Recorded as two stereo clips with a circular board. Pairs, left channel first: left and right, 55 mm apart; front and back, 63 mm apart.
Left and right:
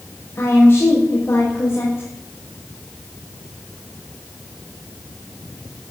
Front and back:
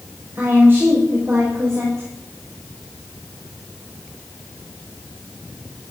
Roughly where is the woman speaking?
Behind left.